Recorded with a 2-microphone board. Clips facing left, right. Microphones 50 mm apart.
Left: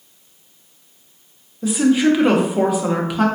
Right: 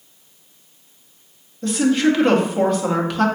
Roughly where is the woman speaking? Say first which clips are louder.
Left 2 dB; centre.